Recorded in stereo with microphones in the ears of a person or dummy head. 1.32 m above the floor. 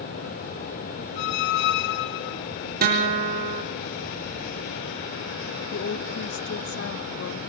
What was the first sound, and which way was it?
A squeak, 60° left (ahead or behind).